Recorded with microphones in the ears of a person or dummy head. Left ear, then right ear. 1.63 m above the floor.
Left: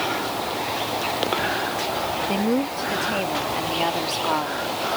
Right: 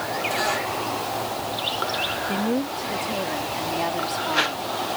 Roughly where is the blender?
I don't hear a blender.